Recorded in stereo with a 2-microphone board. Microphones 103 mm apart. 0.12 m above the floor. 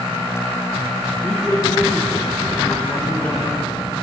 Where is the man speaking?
10° left (ahead or behind), 4.5 m; by 3.7 s 15° left (ahead or behind), 6.5 m.